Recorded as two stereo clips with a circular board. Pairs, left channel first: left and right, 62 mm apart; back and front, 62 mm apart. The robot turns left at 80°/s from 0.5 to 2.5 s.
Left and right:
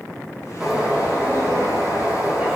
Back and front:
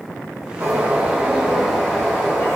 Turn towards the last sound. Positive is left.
turn(degrees=-165)